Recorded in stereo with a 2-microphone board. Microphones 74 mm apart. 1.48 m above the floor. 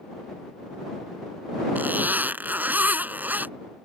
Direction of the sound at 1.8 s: 25° right (ahead or behind).